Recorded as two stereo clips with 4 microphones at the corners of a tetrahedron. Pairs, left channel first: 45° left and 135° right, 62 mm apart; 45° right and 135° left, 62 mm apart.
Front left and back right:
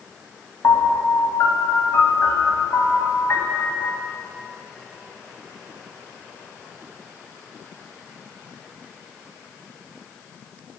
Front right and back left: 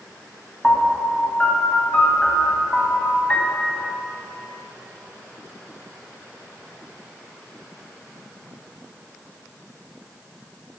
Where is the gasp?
I don't hear a gasp.